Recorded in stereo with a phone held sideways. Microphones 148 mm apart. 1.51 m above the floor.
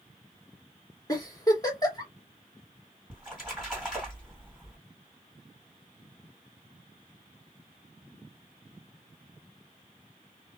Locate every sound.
1.1 s a giggle: 25° left (ahead or behind), 1.2 m
3.1 s a splash: centre (ahead or behind), 2 m